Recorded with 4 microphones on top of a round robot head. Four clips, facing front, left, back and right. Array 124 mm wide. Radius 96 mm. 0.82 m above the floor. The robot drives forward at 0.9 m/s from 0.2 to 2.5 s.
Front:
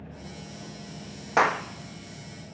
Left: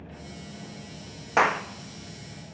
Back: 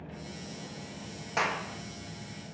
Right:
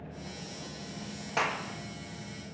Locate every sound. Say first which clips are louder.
1.4 s a clap: left 9 dB, front 8 dB; 45° left, 1.2 m; by 1.6 s 55° left, 1.1 m